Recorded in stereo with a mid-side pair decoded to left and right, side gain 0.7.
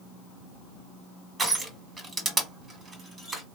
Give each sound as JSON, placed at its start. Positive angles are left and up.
{"t": 1.4, "sound": "crushing", "azimuth_deg": -20, "distance_m": 1.7}